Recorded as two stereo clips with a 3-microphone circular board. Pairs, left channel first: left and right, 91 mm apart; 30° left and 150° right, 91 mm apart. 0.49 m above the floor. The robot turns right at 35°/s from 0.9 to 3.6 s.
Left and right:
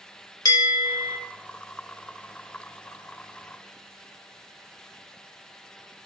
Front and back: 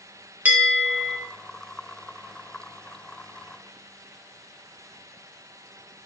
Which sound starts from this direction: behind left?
A bell, at 0.5 s.